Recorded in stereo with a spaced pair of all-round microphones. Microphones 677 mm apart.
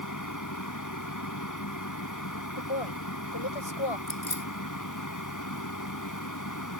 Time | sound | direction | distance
0.0 | a fan | 25° left (ahead or behind) | ?
2.6 | a woman speaking | 40° left (ahead or behind) | ?
4.1 | keys jangling | 30° left (ahead or behind) | ?